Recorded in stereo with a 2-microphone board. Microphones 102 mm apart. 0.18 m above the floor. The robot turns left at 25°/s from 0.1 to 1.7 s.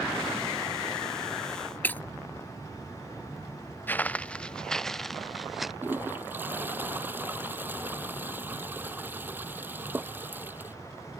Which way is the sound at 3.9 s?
20° left (ahead or behind).